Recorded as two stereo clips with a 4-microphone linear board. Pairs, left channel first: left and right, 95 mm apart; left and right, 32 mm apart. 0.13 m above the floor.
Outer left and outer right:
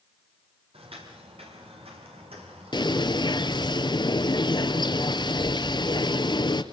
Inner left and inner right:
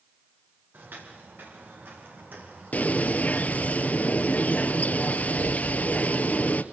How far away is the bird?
About 1.2 m.